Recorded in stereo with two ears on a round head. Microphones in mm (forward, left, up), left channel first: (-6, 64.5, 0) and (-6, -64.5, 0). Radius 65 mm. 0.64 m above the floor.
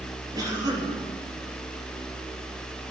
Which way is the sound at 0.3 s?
30° right (ahead or behind).